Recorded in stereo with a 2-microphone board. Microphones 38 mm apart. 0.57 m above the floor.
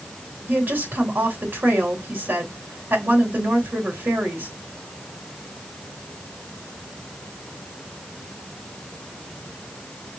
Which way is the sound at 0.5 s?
65° right (ahead or behind).